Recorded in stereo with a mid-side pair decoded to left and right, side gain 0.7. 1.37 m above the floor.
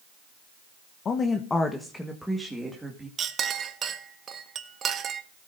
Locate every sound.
1.1 s a woman speaking: 35° left, 1.1 m; by 3.1 s 10° right, 2.5 m
3.2 s a clink: 35° right, 1.4 m